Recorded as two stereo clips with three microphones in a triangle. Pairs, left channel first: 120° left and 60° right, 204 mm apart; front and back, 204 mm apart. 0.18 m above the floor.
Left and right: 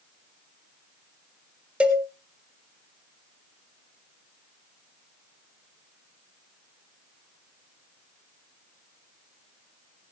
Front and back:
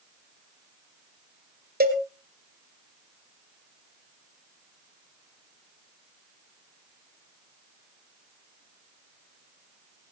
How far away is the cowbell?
About 1.9 m.